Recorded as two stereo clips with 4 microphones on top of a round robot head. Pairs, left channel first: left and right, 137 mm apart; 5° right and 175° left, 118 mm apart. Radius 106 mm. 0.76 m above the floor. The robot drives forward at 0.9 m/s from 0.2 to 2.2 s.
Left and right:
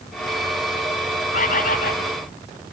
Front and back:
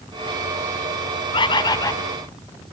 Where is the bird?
40° left, 1.9 m; by 2.0 s 55° left, 1.5 m.